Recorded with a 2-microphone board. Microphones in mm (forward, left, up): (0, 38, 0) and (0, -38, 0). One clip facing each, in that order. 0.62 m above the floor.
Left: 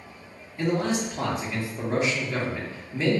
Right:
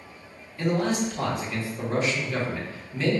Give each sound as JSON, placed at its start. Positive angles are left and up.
{"t": 0.6, "sound": "a man speaking", "side_deg": 20, "distance_m": 0.9}